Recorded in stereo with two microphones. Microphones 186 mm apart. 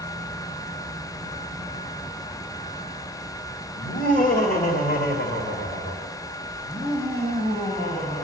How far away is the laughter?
About 2.5 m.